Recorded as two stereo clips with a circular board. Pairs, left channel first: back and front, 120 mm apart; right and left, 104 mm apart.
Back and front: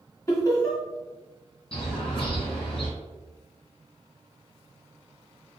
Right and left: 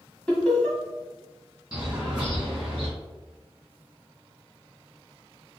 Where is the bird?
175° left, 1.9 m.